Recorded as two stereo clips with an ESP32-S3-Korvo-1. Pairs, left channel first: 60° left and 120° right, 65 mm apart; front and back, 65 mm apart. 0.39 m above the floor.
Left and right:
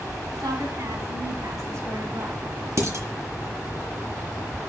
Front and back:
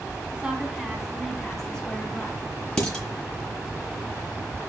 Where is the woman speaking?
110° right, 3 m; by 2.4 s 70° right, 3 m.